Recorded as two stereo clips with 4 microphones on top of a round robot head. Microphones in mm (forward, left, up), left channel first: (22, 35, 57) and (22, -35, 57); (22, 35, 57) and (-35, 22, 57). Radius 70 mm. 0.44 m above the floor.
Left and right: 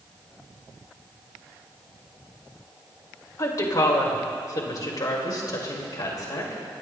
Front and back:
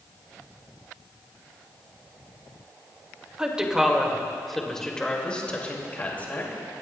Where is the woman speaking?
120° left, 2 m; by 6.6 s 65° left, 3 m.